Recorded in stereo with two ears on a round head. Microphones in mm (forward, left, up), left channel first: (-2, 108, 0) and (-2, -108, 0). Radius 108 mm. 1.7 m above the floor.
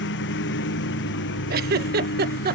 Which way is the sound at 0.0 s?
50° left (ahead or behind).